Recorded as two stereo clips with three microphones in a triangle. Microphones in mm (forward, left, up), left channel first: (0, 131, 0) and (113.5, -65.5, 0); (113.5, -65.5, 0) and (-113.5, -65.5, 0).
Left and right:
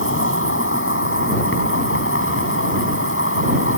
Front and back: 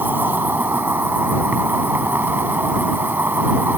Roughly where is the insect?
Left.